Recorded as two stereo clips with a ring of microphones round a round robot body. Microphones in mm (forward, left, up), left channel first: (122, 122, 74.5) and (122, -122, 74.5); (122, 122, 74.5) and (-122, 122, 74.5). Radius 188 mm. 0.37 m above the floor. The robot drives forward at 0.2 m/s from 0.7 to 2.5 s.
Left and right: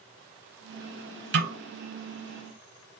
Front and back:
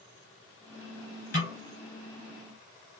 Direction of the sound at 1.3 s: 65° right.